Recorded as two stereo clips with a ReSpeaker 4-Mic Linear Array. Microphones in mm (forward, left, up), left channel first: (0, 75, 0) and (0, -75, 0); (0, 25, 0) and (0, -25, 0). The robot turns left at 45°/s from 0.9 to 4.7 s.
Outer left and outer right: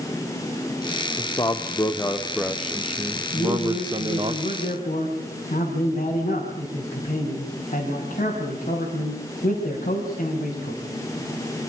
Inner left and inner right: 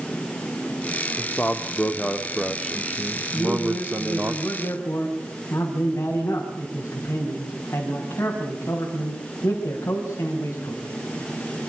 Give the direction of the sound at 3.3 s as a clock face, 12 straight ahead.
8 o'clock.